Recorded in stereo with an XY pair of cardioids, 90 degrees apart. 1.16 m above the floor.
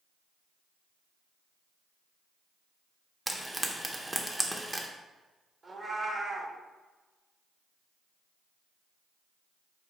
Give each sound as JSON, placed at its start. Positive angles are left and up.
{"t": 3.3, "sound": "frying", "azimuth_deg": -10, "distance_m": 0.6}
{"t": 5.6, "sound": "a cat meowing", "azimuth_deg": -30, "distance_m": 1.0}